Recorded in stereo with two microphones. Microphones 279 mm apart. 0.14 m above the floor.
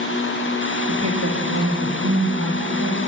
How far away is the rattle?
I don't hear a rattle.